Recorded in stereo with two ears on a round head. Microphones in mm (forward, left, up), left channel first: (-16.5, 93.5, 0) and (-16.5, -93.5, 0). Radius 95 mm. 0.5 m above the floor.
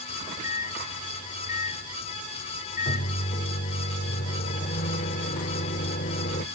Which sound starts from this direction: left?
A microwave, at 0.1 s.